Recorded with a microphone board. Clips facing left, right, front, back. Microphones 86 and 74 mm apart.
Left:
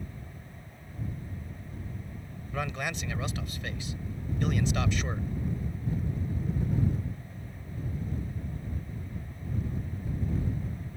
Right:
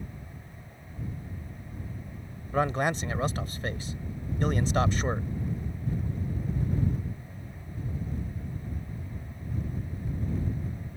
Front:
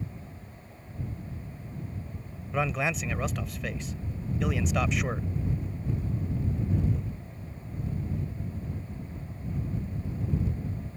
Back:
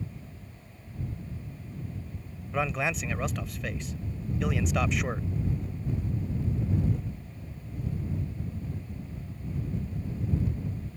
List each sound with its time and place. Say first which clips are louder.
2.5 s a man speaking: right 7 dB, front 1 dB; 90° right